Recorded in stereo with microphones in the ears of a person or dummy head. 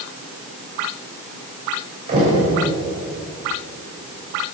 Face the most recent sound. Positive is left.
turn(degrees=-35)  # may be behind; listen again after turning